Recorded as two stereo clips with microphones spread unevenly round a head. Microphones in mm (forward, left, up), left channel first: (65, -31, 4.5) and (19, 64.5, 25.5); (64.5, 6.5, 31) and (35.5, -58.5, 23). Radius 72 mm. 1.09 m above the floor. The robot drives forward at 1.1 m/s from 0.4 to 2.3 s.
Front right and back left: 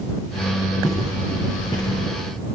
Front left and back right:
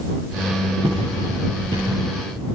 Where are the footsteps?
130° right, 6.5 m.